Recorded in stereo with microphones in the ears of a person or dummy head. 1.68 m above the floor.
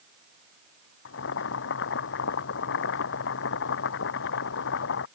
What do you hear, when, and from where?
1.1 s boiling: 65° left (ahead or behind)